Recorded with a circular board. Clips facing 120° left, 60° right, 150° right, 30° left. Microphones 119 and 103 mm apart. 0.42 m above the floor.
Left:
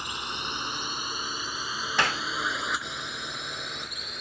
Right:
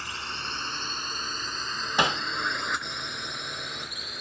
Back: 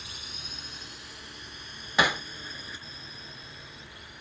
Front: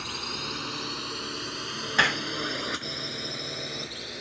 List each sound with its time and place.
0.0 s a drone: 50° left; by 4.2 s 30° left
2.0 s hammering: 95° right